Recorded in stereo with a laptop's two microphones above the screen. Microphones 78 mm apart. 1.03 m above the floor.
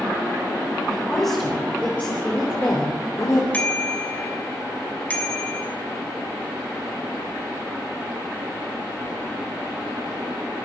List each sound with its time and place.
0.9 s a woman speaking: 5° left (ahead or behind), 4.5 m; by 3.4 s 45° left (ahead or behind), 3 m
3.5 s a bicycle bell: 20° left (ahead or behind), 3 m